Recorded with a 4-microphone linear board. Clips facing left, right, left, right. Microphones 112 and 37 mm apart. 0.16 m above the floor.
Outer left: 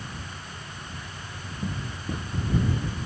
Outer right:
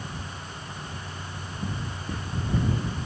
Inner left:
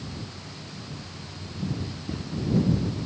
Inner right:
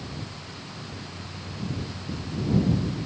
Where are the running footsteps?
15° left (ahead or behind).